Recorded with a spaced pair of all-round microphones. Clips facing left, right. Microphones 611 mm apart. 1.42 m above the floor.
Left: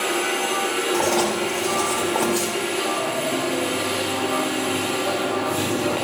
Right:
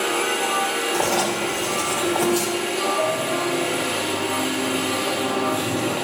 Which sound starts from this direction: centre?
Writing, at 0.9 s.